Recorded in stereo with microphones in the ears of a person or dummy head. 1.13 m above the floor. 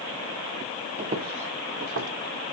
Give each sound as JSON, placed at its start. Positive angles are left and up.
{"t": 1.0, "sound": "footsteps", "side_deg": -45, "distance_m": 1.6}